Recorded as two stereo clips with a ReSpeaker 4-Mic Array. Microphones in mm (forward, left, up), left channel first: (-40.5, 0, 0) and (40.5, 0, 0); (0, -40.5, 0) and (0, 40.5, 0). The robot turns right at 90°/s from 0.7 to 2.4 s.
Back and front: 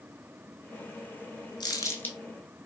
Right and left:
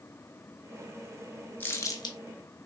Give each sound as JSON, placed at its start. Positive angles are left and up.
{"t": 1.6, "sound": "crumpling", "azimuth_deg": -155, "distance_m": 0.5}